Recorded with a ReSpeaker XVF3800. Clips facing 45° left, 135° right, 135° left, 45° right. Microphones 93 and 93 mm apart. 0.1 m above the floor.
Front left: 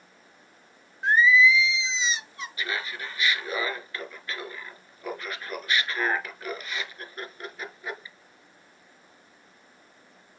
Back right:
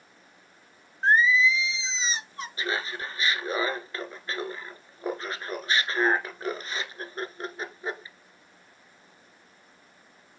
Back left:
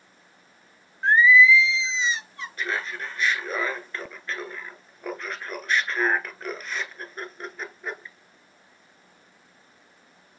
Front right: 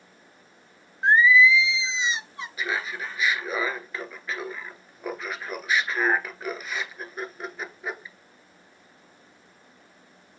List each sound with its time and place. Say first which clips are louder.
1.0 s singing: front left 2 dB, back left 1 dB; 105° right, 0.5 m
2.6 s laughter: back right 2 dB, even; 125° right, 1.2 m